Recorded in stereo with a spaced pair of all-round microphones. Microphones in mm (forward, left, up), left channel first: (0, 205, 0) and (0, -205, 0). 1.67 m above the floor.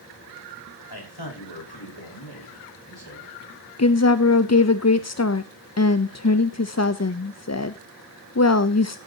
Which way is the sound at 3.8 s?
40° left (ahead or behind).